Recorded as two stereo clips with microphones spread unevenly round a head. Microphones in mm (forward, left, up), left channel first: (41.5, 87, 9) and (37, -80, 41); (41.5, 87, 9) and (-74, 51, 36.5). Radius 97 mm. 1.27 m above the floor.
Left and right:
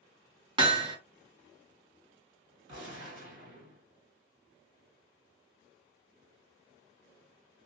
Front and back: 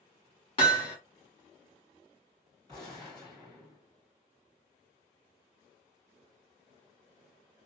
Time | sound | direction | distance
0.6 | hammering | 50° right | 0.8 m
2.7 | a gunshot | 95° right | 1.7 m